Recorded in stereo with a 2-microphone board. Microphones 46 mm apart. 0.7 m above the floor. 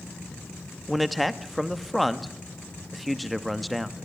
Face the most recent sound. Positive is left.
turn(degrees=0)  # may be behind; listen again after turning